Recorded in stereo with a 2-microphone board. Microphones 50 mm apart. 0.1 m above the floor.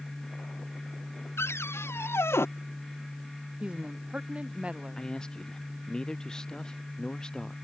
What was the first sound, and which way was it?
A cupboard door, 50° left (ahead or behind).